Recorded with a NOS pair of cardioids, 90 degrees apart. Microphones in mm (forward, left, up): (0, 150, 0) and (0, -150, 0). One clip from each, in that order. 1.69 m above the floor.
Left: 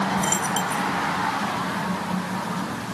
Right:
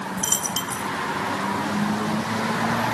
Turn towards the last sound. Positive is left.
turn(degrees=-35)